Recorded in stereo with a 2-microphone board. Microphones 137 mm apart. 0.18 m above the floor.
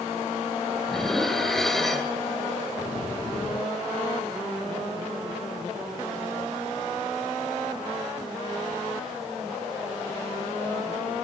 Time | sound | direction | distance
0.9 | dishes clattering | 5° left (ahead or behind) | 2.0 m